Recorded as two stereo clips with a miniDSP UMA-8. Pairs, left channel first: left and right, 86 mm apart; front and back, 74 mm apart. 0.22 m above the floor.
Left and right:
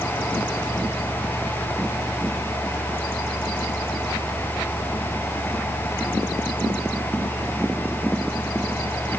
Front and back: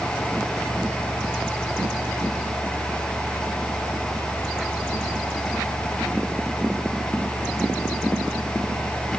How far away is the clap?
I don't hear a clap.